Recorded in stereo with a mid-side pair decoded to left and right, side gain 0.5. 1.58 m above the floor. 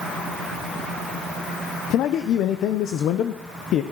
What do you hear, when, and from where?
1.9 s a man speaking: 65° left, 0.9 m